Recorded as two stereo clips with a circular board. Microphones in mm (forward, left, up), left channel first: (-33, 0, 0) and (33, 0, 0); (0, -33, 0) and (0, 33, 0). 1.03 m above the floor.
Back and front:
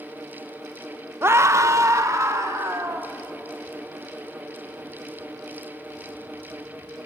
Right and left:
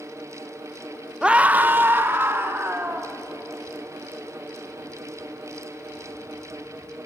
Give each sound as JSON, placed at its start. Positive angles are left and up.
{"t": 1.2, "sound": "a scream", "azimuth_deg": 20, "distance_m": 0.8}